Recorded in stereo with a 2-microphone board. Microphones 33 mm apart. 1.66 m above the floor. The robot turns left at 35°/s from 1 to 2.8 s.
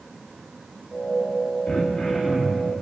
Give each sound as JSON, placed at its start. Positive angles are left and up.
{"t": 1.7, "sound": "throat clearing", "azimuth_deg": 30, "distance_m": 2.0}